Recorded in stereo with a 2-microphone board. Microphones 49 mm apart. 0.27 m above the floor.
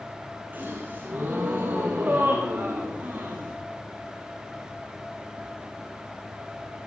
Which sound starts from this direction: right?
A gasp, at 0.5 s.